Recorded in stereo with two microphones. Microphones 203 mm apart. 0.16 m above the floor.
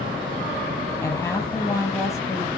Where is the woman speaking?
10° left (ahead or behind), 5 m.